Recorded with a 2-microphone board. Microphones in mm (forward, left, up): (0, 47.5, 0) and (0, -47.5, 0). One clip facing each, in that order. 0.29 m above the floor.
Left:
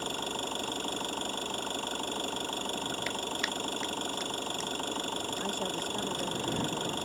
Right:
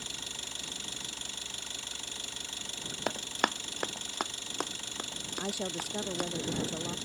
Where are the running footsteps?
45° right (ahead or behind); by 6.3 s 65° right (ahead or behind).